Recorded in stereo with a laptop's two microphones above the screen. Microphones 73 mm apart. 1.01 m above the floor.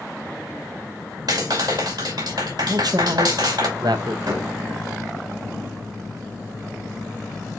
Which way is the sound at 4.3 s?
75° right (ahead or behind).